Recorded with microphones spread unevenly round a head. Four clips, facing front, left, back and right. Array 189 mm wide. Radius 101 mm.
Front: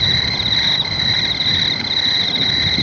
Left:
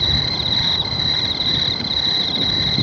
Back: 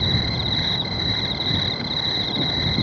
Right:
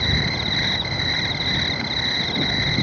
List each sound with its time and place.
0.0 s an insect: 85° right